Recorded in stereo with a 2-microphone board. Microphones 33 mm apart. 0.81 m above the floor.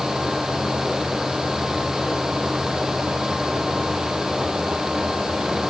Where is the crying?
No crying in this recording.